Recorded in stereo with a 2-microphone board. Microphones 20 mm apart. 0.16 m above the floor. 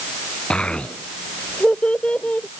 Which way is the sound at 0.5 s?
45° left (ahead or behind).